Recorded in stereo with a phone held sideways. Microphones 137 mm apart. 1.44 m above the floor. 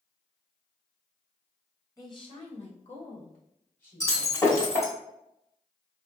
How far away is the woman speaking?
About 0.8 m.